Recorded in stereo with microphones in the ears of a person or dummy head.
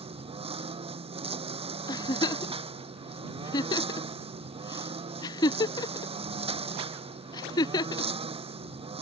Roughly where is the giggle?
Left.